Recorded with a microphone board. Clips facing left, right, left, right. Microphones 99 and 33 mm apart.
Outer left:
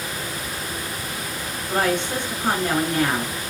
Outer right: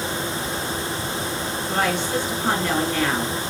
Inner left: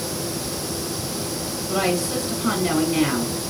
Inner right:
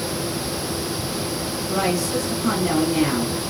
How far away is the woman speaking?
About 1.0 m.